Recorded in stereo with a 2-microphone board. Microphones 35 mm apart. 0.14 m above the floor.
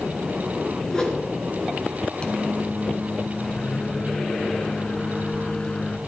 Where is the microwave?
35° left (ahead or behind), 1.2 m.